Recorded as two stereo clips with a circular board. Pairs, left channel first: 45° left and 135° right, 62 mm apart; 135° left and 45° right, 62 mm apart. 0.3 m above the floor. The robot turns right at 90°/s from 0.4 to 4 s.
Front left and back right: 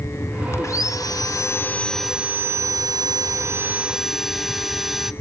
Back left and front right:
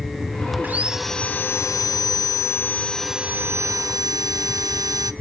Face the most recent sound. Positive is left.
turn(degrees=-50)